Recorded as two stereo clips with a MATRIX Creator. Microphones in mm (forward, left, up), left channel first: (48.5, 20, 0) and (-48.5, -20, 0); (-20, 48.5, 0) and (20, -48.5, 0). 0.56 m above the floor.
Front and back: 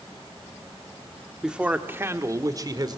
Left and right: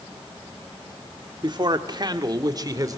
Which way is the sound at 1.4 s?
75° right.